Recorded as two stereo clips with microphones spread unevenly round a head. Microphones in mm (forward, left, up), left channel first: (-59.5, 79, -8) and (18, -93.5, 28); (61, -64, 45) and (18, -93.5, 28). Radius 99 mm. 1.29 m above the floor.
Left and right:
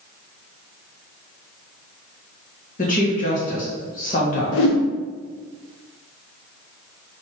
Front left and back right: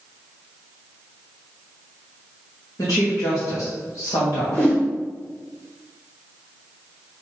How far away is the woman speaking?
About 1.5 m.